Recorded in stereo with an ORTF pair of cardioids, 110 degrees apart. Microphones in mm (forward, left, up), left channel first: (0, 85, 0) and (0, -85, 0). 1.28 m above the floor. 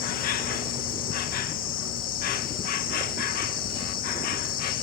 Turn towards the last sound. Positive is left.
turn(degrees=60)